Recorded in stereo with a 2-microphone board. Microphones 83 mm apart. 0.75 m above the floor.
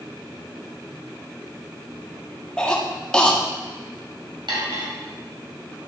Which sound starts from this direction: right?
Cutlery clinking, at 4.5 s.